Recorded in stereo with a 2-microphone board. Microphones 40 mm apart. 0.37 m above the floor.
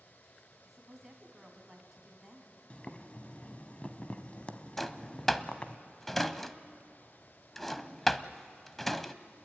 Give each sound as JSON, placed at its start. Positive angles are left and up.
{"t": 0.7, "sound": "a woman speaking", "side_deg": -10, "distance_m": 3.5}
{"t": 2.7, "sound": "boiling", "side_deg": 35, "distance_m": 1.1}
{"t": 4.8, "sound": "a drawer", "side_deg": 5, "distance_m": 0.7}